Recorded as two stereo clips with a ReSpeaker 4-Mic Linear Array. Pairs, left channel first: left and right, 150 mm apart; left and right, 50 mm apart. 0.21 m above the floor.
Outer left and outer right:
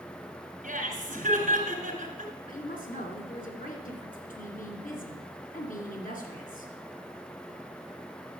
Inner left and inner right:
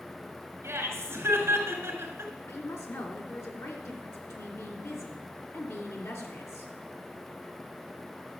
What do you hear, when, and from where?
0.6 s laughter: 55° right (ahead or behind), 3 m
2.5 s a woman speaking: 65° left (ahead or behind), 2.5 m